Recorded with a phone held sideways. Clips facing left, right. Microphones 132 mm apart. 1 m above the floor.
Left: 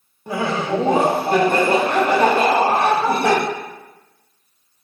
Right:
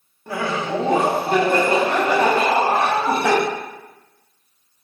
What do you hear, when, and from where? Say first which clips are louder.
0.3 s laughter: left 2 dB; 15° left (ahead or behind), 0.6 m; by 3.4 s 60° left (ahead or behind), 2.5 m